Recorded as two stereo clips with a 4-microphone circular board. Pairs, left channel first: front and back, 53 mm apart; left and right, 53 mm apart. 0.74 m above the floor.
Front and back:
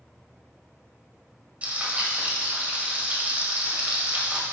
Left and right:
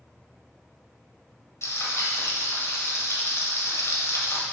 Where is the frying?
120° left, 1.8 m.